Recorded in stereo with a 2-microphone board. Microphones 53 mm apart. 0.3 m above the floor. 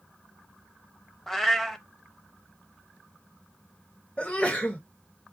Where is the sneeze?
25° left (ahead or behind), 0.9 m.